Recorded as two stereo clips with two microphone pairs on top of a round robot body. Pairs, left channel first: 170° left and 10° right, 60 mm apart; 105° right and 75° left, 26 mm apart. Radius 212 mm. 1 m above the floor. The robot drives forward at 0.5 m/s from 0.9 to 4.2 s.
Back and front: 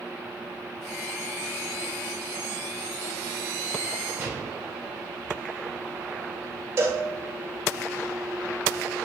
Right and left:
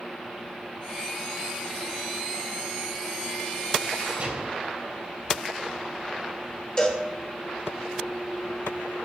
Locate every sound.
4.2 s a gunshot: 40° left, 5.5 m
6.8 s a cowbell: 40° right, 2.5 m